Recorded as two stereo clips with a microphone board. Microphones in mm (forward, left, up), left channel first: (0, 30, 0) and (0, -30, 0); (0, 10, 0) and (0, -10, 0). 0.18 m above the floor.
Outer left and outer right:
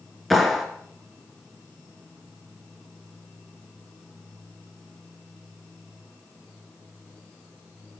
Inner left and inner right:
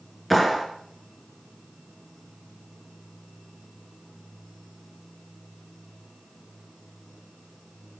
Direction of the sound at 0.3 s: Centre (ahead or behind).